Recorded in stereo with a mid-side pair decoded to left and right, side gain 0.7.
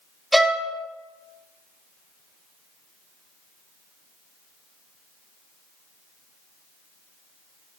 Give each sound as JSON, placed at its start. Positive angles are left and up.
{"t": 0.3, "sound": "a violin", "azimuth_deg": -5, "distance_m": 1.5}